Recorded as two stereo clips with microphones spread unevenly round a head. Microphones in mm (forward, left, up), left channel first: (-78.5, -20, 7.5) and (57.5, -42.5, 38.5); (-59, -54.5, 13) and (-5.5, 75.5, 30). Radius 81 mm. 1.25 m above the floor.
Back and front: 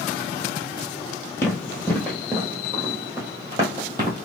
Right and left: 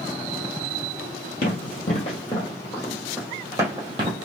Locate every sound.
1.4 s running footsteps: 110° right, 1.7 m; by 4.2 s 30° left, 1.7 m